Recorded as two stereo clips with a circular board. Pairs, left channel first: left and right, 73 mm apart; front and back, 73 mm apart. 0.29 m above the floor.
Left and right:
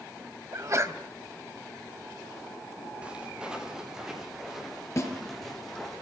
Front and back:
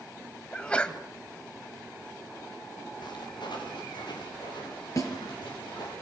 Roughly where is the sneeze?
Right.